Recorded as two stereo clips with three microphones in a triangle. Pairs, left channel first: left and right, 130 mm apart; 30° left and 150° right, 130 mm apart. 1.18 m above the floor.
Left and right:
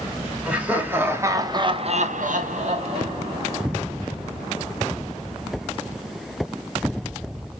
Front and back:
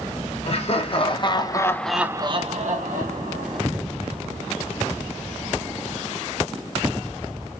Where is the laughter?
10° right, 1.3 m; by 3.8 s 150° right, 1.3 m.